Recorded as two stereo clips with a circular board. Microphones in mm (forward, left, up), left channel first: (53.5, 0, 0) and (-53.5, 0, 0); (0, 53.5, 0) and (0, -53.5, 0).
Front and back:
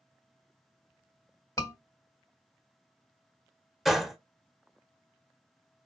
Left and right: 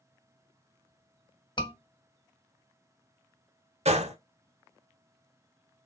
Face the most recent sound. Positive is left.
turn(degrees=-95)